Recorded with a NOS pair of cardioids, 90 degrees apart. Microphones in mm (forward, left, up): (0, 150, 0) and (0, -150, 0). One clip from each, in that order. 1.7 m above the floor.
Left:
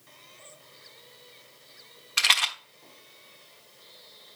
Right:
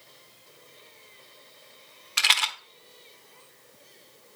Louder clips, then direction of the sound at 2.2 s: Even; straight ahead.